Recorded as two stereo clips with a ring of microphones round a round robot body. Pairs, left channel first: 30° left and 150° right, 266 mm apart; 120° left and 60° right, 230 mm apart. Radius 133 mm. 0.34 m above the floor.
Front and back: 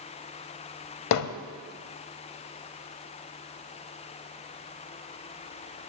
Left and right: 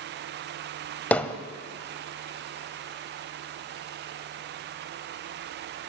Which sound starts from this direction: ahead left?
Hammering, at 1.1 s.